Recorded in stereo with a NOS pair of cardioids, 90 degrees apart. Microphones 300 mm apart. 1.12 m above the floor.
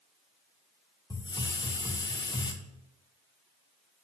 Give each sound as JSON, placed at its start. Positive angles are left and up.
{"t": 1.1, "sound": "a hiss", "azimuth_deg": 15, "distance_m": 0.8}